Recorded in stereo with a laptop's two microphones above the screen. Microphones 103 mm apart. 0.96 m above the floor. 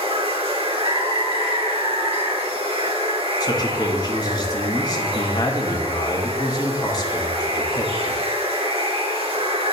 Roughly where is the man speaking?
Left.